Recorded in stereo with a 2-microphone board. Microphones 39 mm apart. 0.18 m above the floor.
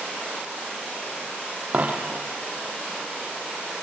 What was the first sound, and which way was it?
A dropped coin, 40° right (ahead or behind).